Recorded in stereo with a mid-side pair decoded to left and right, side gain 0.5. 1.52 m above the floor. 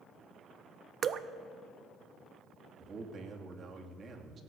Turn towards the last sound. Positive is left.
turn(degrees=-45)